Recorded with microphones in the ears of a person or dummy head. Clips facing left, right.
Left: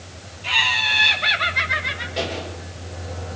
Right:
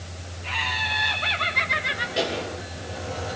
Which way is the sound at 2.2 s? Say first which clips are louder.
Right 1 dB; 15° right (ahead or behind).